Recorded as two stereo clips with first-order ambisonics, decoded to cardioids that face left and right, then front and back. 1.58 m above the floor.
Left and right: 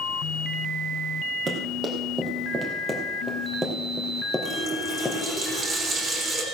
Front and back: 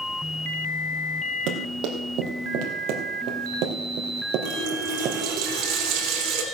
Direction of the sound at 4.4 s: 155° right.